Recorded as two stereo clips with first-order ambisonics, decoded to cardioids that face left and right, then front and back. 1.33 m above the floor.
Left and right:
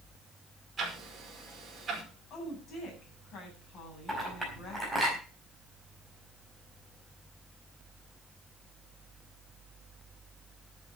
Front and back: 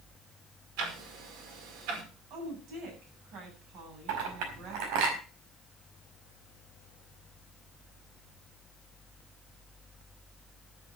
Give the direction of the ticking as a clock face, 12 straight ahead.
5 o'clock.